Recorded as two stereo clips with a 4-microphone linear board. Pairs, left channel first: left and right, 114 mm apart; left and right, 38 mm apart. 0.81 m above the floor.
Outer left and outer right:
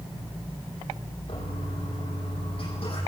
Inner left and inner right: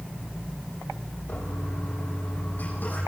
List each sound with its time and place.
1.3 s a toilet flushing: 55° left (ahead or behind), 9.5 m